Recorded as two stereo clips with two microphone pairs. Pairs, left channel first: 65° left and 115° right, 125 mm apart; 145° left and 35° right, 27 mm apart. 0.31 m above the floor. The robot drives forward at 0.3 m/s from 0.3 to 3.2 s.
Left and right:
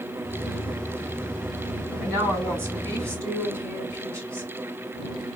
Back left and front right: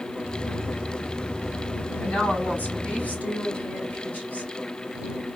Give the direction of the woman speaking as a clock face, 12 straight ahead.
6 o'clock.